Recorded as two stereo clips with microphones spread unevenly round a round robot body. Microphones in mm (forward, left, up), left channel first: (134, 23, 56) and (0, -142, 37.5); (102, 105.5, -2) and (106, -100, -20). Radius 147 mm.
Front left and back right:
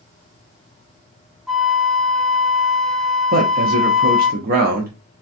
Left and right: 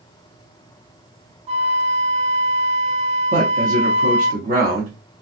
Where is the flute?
40° right, 0.7 m.